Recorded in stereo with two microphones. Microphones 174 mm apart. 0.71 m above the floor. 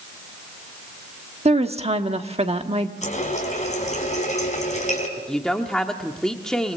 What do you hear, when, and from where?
1.4 s a woman speaking: 35° right (ahead or behind), 1.3 m
3.0 s a running tap: 40° left (ahead or behind), 4 m
5.2 s a woman speaking: 5° left (ahead or behind), 1.2 m